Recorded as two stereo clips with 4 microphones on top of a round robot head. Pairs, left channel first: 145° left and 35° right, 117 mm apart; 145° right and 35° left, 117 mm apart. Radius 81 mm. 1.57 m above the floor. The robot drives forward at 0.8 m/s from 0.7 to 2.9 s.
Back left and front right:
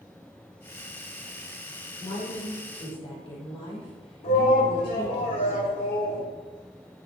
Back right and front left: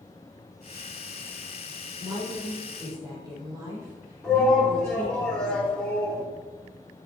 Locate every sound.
2.0 s a woman speaking: 90° left, 5.5 m; by 5.2 s 100° left, 5.5 m
4.2 s a shout: 130° left, 3 m